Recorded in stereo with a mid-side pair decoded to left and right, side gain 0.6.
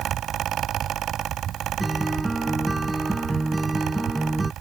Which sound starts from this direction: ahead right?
A fan, at 0.0 s.